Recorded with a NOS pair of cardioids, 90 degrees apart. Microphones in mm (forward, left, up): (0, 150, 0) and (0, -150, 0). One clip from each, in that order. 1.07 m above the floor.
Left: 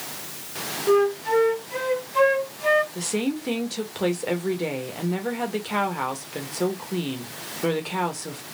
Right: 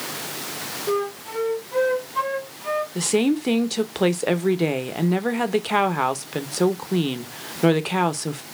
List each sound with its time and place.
0.9 s a flute: 40° left, 1.8 m
3.0 s a woman speaking: 35° right, 0.9 m